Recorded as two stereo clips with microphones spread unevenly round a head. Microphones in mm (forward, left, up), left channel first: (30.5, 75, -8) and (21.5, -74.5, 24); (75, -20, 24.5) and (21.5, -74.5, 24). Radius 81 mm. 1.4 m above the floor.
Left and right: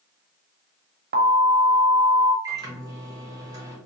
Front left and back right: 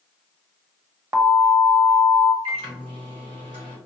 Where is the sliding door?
I don't hear a sliding door.